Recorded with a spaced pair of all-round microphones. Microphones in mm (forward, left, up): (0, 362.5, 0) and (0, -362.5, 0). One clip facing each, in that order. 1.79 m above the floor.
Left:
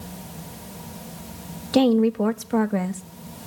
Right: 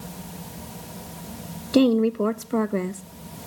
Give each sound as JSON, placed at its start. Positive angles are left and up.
{"t": 1.7, "sound": "a woman speaking", "side_deg": 25, "distance_m": 0.6}